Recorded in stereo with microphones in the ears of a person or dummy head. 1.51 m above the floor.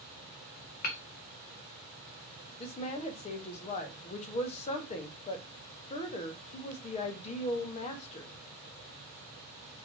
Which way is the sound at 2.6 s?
35° left (ahead or behind).